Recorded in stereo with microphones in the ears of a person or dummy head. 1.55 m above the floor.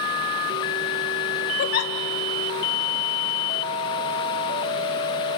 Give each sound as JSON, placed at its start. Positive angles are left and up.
{"t": 1.6, "sound": "a giggle", "side_deg": 55, "distance_m": 1.3}